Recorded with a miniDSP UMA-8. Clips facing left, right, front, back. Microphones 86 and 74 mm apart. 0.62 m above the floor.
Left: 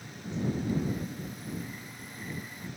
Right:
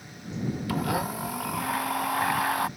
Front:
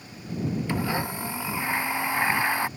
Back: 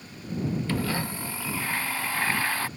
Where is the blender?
75° right.